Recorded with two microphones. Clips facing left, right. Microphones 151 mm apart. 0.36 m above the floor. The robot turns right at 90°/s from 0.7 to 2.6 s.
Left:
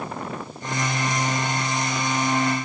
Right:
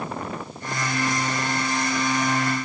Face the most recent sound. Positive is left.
No sound to turn to.